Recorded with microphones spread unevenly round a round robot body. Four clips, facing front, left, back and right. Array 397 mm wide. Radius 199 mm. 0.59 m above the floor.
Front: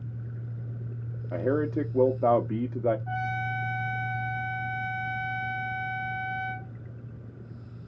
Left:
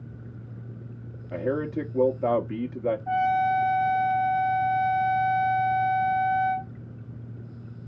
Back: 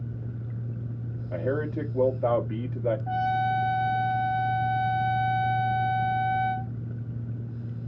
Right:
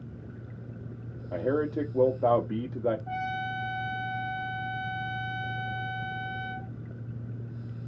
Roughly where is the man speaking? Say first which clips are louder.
Even, front 2 dB; ahead.